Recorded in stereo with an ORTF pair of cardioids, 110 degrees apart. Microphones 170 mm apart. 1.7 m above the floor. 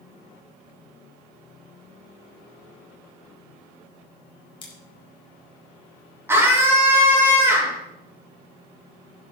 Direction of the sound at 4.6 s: 30° left.